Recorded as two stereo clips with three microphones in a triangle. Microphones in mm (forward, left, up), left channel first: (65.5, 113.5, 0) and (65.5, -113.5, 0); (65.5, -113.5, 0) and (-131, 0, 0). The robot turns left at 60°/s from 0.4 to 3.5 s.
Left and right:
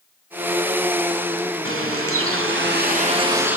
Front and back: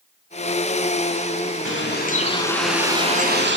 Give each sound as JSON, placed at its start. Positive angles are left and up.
{"t": 1.6, "sound": "a bird", "azimuth_deg": -60, "distance_m": 0.5}